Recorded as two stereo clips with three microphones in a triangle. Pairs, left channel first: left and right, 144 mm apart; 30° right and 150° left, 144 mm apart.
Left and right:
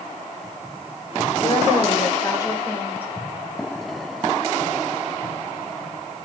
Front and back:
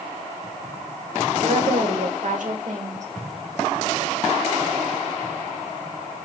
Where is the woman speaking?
135° left, 2.5 m; by 3.1 s 165° left, 2 m.